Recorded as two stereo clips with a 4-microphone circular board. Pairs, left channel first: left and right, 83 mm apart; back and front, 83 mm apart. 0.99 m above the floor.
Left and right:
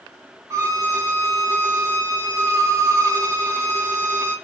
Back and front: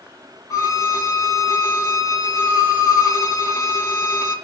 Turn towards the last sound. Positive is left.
turn(degrees=-135)